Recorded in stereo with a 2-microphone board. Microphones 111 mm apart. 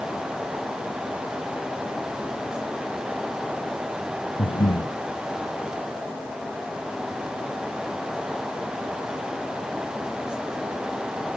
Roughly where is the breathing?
Left.